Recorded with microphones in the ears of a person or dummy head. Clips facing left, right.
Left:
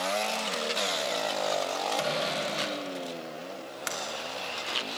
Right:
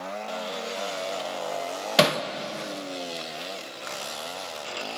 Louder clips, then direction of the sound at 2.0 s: Right 12 dB; 80° right.